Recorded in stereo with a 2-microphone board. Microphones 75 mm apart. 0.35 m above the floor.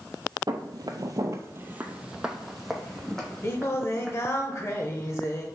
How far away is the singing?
About 0.8 m.